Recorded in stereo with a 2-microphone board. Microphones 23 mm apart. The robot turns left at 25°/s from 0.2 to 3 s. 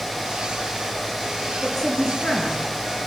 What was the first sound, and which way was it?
A woman speaking, 15° left (ahead or behind).